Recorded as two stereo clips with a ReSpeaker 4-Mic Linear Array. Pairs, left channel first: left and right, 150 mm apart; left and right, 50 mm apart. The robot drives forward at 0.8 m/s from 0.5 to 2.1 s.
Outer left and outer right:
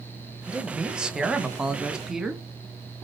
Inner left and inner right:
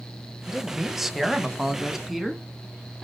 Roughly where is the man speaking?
Centre.